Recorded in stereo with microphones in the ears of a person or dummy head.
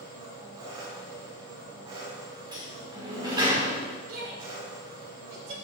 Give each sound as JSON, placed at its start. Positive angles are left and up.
{"t": 0.0, "sound": "an engine running", "side_deg": -30, "distance_m": 4.0}
{"t": 2.5, "sound": "a sliding door", "side_deg": -20, "distance_m": 2.5}
{"t": 4.1, "sound": "a shout", "side_deg": -80, "distance_m": 4.5}